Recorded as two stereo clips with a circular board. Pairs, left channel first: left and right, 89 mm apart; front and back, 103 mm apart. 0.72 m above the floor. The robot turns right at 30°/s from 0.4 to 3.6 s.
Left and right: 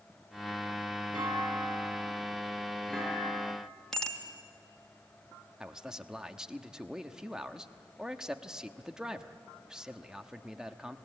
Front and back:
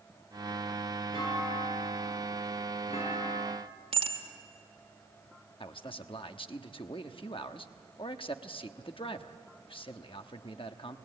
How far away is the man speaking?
About 1.1 m.